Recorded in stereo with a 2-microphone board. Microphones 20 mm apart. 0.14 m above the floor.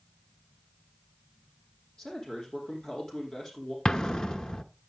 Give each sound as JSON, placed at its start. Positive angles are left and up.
{"t": 2.0, "sound": "a man speaking", "side_deg": 40, "distance_m": 4.0}
{"t": 3.9, "sound": "an explosion", "side_deg": 35, "distance_m": 0.8}